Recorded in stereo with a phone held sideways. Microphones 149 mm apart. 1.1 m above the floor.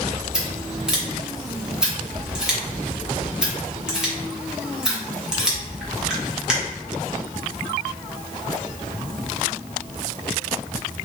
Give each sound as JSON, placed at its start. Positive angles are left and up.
{"t": 0.3, "sound": "scissors", "side_deg": -5, "distance_m": 0.8}